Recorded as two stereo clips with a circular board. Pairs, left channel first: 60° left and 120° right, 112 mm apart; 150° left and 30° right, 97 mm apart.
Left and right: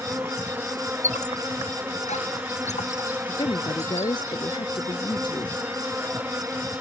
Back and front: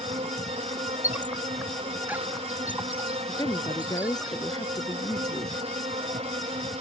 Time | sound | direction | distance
0.0 | an insect | 45° right | ?
1.0 | a squeak | 45° left | ?
3.3 | a woman speaking | 105° left | ?